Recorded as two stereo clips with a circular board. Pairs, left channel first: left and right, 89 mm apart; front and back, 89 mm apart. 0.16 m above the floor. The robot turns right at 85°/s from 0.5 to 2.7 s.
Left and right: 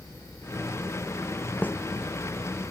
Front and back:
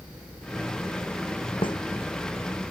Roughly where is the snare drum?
Ahead.